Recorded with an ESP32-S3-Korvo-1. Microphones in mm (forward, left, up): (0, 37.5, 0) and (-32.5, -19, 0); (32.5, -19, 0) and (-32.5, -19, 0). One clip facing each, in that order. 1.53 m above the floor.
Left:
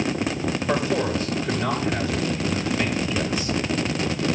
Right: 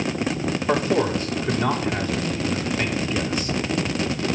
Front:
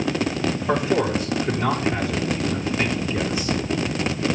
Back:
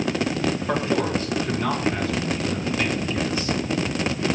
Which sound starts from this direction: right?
A man speaking, at 0.7 s.